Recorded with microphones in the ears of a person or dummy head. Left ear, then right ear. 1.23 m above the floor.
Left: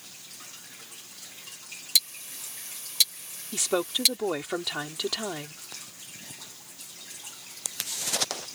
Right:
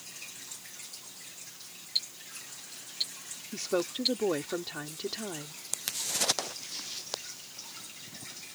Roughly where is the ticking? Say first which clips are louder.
Left 8 dB; left.